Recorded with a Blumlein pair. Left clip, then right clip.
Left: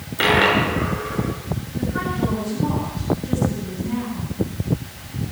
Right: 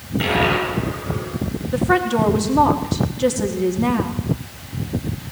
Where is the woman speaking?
45° right, 4 m.